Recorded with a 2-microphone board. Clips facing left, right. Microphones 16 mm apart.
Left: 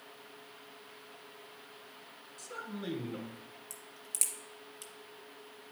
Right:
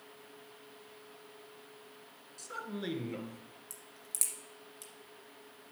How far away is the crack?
About 2.5 m.